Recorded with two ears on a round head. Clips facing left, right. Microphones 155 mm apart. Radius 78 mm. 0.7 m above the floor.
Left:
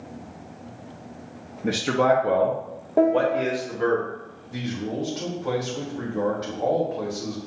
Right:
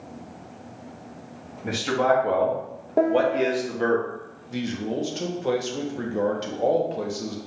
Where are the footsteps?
No footsteps in this recording.